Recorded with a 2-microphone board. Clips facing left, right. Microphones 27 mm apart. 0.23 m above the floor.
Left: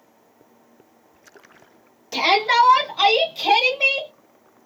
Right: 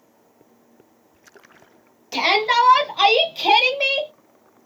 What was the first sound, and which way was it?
A shout, 10° right (ahead or behind).